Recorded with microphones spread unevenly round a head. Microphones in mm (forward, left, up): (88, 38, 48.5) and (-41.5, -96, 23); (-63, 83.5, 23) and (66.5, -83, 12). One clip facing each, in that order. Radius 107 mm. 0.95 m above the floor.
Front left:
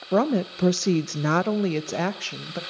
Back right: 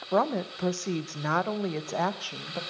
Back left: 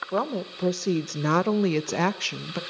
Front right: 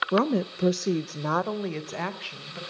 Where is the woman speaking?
15° right, 0.7 m; by 2.6 s 120° left, 1.1 m.